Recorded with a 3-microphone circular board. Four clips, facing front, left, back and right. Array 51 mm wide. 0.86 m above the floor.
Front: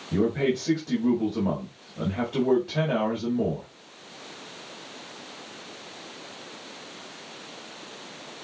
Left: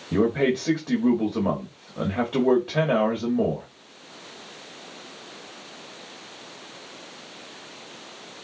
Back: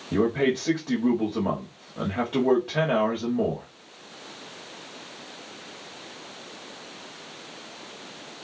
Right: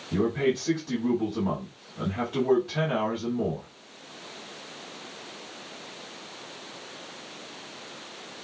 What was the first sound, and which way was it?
A man speaking, 120° left.